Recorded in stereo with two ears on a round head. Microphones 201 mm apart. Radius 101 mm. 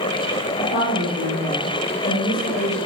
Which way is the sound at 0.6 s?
55° left (ahead or behind).